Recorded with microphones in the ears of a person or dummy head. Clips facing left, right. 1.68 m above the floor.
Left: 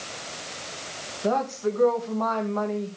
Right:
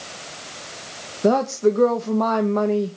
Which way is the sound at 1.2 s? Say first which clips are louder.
Right 8 dB; 65° right (ahead or behind).